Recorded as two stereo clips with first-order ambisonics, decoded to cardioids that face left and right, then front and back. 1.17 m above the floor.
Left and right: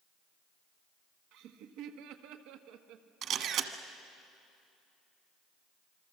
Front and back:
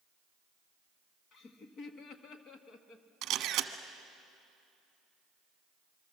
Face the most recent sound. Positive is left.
turn(degrees=-135)